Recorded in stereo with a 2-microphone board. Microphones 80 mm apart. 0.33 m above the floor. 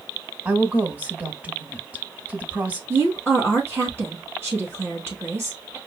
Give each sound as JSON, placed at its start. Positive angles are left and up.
{"t": 0.5, "sound": "a woman speaking", "side_deg": -20, "distance_m": 1.1}
{"t": 2.9, "sound": "a woman speaking", "side_deg": -30, "distance_m": 4.0}